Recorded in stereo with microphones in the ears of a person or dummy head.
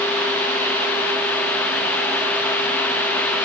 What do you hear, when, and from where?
Only background noise.